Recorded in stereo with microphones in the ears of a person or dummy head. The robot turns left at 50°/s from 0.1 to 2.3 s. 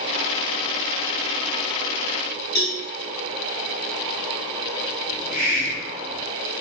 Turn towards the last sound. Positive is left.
turn(degrees=-5)  # may be behind; listen again after turning